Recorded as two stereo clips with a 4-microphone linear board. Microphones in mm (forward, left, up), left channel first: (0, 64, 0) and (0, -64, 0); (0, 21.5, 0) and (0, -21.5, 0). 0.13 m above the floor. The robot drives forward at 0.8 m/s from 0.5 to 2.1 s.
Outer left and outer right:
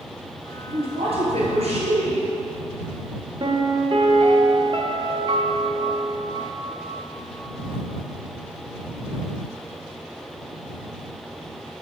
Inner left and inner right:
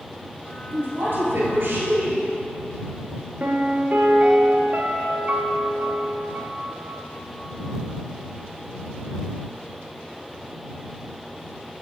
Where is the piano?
45° right (ahead or behind), 0.8 m.